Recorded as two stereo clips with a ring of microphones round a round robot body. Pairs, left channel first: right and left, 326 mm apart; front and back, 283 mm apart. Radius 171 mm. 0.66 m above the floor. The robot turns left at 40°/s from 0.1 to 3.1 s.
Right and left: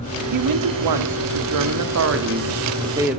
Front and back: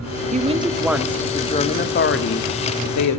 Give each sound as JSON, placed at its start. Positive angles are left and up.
{"t": 0.3, "sound": "a woman speaking", "azimuth_deg": 120, "distance_m": 1.2}